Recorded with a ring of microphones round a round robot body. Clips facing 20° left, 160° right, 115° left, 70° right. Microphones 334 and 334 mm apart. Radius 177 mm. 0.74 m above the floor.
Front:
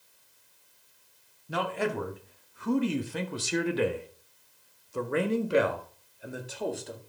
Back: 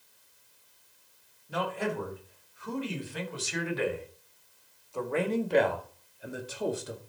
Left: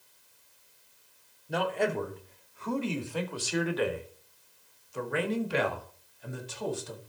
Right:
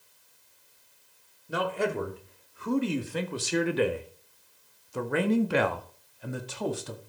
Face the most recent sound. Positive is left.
turn(degrees=-80)